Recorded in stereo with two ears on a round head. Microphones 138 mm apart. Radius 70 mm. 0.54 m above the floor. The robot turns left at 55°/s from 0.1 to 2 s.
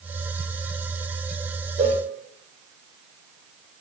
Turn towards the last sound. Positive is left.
turn(degrees=-30)  # may be behind; listen again after turning